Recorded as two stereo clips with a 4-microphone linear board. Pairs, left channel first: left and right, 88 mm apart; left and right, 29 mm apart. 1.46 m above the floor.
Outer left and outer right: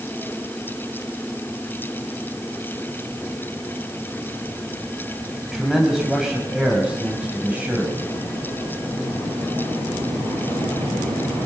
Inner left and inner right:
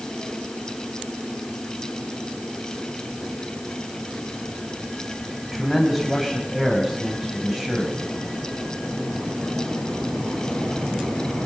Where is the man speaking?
5° right (ahead or behind), 8 m; by 8.0 s 20° right (ahead or behind), 7.5 m.